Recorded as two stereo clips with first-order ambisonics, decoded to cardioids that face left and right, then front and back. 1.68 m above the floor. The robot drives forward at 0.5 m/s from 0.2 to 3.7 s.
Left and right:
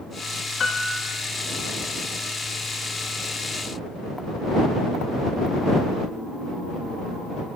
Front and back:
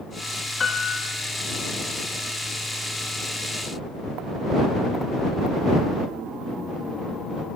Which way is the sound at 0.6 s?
50° left.